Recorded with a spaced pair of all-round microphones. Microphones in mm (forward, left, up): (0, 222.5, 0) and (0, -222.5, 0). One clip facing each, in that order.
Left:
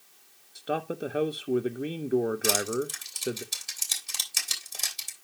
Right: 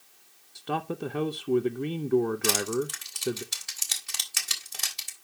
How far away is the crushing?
About 2 m.